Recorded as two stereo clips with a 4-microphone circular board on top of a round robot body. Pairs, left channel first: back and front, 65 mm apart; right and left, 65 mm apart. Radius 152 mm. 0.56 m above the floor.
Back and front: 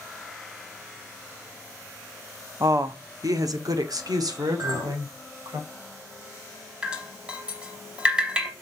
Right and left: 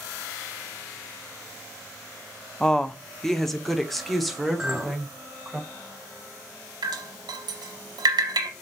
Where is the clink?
10° left, 3 m.